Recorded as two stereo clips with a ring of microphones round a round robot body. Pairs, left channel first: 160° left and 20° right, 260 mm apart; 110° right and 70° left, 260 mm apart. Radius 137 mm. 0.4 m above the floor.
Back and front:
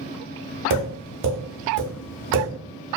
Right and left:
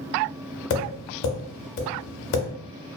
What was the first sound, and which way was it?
Tapping, 70° right.